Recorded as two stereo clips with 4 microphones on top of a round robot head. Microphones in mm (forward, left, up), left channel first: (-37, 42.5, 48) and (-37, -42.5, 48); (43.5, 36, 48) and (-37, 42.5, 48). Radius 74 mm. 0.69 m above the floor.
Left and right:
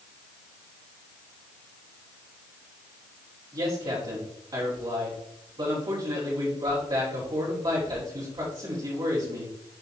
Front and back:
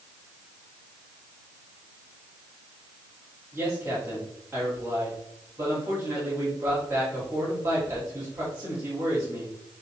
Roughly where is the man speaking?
Behind right.